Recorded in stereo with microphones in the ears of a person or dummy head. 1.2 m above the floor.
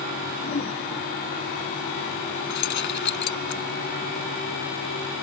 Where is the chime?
No chime in this recording.